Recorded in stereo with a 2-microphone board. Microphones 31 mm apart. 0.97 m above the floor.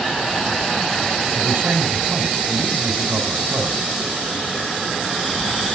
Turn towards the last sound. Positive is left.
turn(degrees=-80)